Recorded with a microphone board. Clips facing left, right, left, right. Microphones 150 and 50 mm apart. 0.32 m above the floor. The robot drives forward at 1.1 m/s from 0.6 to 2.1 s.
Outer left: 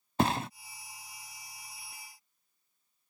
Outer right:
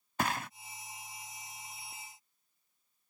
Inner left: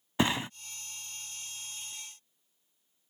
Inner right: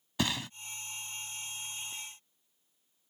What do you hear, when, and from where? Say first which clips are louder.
0.2 s a thud: outer left 6 dB, inner left 5 dB; 30° left (ahead or behind)